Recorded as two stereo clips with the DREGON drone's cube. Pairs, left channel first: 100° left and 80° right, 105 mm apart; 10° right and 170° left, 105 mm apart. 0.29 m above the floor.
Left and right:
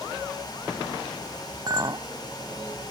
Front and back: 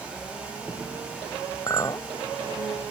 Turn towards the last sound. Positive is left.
turn(degrees=-55)